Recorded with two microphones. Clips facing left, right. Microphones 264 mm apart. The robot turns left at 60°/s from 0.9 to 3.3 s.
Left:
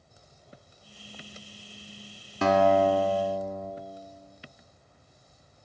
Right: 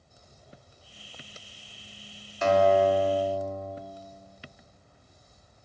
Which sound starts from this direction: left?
A guitar, at 2.4 s.